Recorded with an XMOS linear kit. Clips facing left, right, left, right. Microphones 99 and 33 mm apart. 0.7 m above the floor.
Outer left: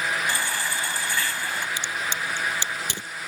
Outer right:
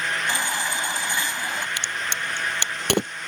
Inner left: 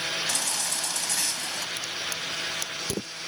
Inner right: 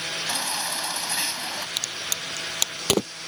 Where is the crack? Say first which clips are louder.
Even, inner right 1 dB; 65° right (ahead or behind).